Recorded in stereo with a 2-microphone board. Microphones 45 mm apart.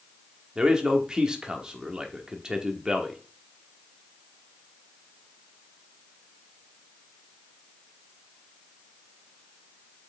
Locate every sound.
0.6 s a man speaking: 15° right (ahead or behind), 1.3 m